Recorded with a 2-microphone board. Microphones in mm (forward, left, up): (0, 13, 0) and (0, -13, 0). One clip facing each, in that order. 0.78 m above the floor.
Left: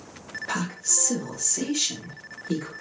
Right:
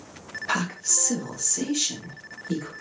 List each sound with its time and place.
0.5 s a woman speaking: 25° right (ahead or behind), 0.5 m; by 2.7 s 15° left (ahead or behind), 1.4 m